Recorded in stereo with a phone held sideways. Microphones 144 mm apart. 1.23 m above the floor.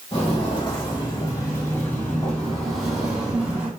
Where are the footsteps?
40° left (ahead or behind), 1.7 m; by 3.7 s 10° right (ahead or behind), 1.9 m.